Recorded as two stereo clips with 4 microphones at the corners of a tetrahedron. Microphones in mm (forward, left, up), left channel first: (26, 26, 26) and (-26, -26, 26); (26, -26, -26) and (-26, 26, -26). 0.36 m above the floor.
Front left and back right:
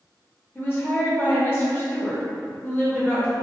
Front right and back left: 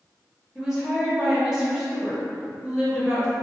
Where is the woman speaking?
60° left, 0.9 m.